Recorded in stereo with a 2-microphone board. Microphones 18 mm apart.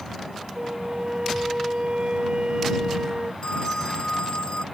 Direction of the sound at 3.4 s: 55° left (ahead or behind).